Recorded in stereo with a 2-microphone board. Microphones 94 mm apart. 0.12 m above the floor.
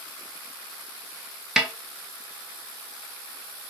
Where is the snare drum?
5° right (ahead or behind), 0.8 m.